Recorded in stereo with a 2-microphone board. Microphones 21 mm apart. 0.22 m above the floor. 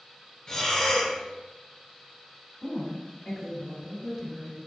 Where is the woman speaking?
5° left (ahead or behind), 1.3 m.